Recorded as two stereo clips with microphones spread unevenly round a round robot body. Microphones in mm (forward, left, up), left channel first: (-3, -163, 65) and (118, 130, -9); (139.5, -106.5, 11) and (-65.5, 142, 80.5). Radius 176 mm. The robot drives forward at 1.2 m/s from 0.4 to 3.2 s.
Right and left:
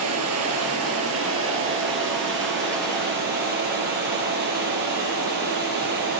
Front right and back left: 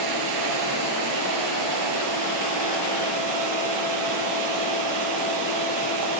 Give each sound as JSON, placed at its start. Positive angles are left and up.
{"t": 0.0, "sound": "running water", "azimuth_deg": 120, "distance_m": 10.0}